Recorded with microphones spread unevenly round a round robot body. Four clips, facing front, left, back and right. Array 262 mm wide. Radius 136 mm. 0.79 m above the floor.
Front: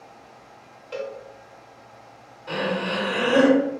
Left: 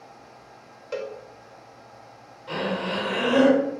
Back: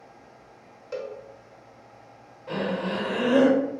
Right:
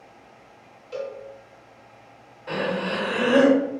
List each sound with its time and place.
0.9 s a cowbell: 90° left, 0.9 m
2.5 s breathing: 110° right, 1.0 m